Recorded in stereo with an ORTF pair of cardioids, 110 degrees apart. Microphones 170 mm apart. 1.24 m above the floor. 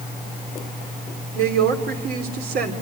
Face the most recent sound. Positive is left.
turn(degrees=-65)